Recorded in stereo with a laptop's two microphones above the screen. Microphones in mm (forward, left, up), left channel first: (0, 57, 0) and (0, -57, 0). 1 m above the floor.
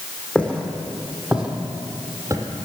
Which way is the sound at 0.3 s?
10° left (ahead or behind).